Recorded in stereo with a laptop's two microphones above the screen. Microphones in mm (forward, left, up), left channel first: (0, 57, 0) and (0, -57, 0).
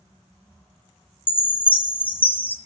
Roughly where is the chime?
Centre.